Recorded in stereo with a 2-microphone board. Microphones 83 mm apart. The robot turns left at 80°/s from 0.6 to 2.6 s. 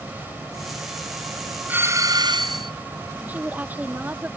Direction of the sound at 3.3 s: 20° right (ahead or behind).